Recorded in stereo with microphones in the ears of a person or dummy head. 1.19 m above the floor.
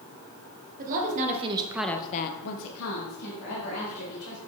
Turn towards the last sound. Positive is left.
turn(degrees=80)